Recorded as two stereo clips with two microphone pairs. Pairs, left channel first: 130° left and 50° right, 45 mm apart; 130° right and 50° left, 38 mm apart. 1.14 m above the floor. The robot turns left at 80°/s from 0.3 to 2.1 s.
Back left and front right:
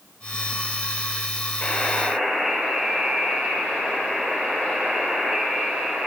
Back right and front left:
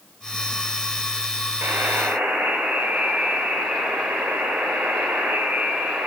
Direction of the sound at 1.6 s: 70° left.